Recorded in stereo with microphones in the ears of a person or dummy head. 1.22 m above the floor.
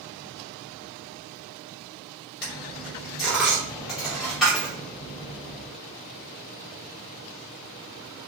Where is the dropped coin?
Centre (ahead or behind), 0.5 m.